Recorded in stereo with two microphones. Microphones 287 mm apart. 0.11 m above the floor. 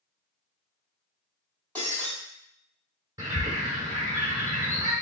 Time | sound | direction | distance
1.8 | breaking glass | 5° left (ahead or behind) | 2.0 m
3.2 | a bird | 10° right (ahead or behind) | 1.9 m